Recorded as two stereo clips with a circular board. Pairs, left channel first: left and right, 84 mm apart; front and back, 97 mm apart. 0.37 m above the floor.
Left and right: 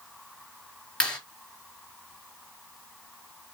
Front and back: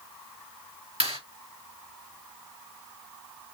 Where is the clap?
170° left, 6.5 m.